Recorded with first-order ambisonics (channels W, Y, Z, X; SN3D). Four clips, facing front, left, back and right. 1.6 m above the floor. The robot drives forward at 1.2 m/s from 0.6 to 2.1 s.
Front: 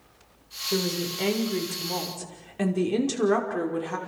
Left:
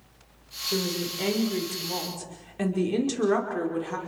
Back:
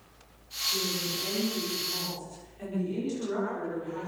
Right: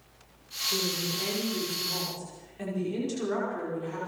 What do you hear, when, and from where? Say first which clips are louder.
0.7 s a woman speaking: left 2 dB, front 5 dB; 25° left, 7 m; by 4.0 s 35° left, 5.5 m